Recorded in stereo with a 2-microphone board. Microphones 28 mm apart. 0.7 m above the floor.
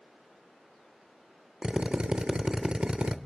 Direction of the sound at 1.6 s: 35° right (ahead or behind).